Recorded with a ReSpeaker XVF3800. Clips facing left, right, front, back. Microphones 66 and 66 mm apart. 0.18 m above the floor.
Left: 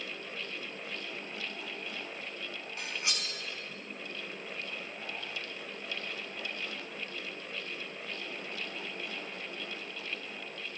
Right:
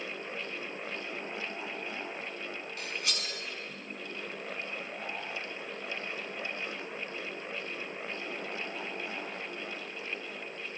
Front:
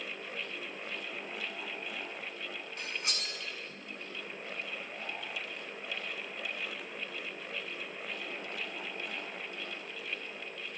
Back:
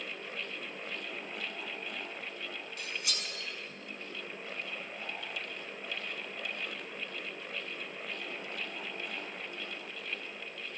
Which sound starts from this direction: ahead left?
Cutlery clinking, at 2.8 s.